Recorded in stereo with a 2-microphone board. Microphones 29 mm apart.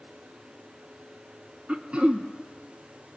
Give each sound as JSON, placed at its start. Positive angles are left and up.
{"t": 1.7, "sound": "throat clearing", "side_deg": -45, "distance_m": 0.9}